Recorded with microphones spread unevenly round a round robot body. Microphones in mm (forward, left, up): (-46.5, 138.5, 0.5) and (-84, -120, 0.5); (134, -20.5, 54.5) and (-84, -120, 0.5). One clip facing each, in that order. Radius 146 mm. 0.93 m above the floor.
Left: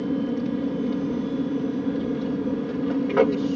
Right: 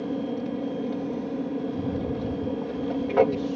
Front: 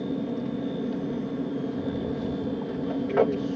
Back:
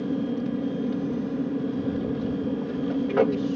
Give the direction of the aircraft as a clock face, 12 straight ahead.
7 o'clock.